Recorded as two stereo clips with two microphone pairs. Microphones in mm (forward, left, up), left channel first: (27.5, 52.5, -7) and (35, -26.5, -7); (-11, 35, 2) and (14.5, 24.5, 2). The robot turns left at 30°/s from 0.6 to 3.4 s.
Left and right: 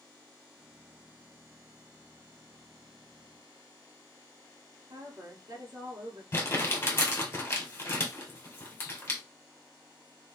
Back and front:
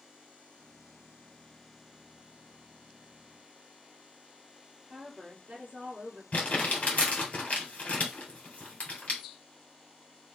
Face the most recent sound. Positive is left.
turn(degrees=145)